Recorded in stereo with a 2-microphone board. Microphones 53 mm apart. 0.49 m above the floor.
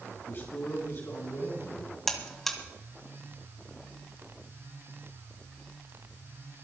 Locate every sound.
0.3 s a man speaking: 45° left (ahead or behind), 6 m; by 2.0 s 55° left (ahead or behind), 6 m
2.1 s a buzzer: 5° left (ahead or behind), 1.8 m